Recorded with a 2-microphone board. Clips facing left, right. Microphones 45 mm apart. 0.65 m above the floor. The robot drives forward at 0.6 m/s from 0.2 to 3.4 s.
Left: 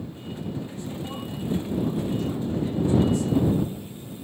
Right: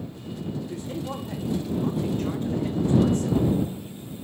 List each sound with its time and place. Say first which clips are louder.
0.6 s a man speaking: right 2 dB; 70° right (ahead or behind), 1.9 m; by 3.4 s 45° right (ahead or behind), 2.5 m